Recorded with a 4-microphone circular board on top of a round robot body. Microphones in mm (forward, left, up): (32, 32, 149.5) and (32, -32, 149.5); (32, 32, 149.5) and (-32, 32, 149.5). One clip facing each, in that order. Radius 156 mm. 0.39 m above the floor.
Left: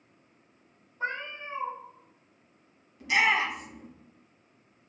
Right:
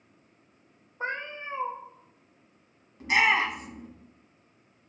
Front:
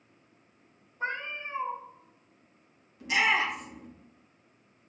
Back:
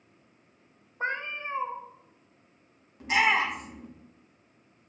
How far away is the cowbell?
I don't hear a cowbell.